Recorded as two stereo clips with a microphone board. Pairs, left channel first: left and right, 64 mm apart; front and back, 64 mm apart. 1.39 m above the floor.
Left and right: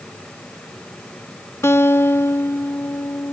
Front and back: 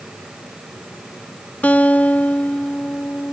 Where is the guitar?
60° left.